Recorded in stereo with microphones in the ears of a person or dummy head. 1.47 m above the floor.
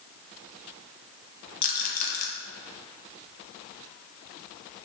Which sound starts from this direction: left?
A rattle, at 1.6 s.